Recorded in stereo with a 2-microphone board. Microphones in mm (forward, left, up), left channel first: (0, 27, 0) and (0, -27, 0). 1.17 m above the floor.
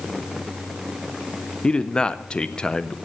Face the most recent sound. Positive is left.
turn(degrees=15)  # may be behind; listen again after turning